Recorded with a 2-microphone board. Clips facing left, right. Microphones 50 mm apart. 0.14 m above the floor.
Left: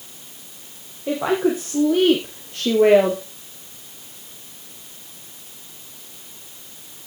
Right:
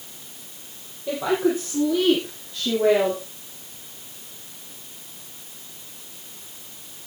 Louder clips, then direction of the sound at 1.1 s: Left 2 dB; 25° left (ahead or behind).